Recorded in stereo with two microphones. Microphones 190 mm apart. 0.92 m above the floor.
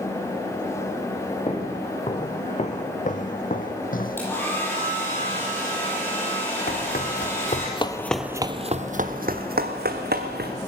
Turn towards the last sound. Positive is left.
turn(degrees=-60)  # may be behind; listen again after turning